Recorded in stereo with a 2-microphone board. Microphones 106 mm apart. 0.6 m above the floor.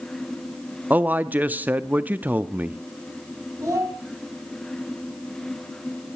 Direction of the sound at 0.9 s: 20° right (ahead or behind).